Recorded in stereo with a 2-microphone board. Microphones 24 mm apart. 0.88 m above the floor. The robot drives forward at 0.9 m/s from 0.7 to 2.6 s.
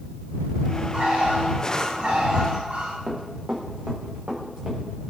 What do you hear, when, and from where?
0.9 s a bird: 60° right (ahead or behind), 7.5 m; by 3.0 s 70° right (ahead or behind), 6.5 m
3.1 s running footsteps: 65° right (ahead or behind), 4.5 m; by 4.8 s 55° right (ahead or behind), 6.5 m